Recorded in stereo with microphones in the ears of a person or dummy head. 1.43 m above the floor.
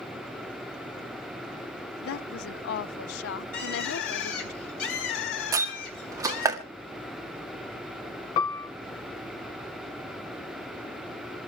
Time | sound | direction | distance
2.0 | a woman speaking | 80° left | 0.6 m
3.5 | a bird | 80° left | 4 m
5.5 | a door slam | 10° right (ahead or behind) | 1.8 m
8.4 | a piano | 35° left (ahead or behind) | 0.6 m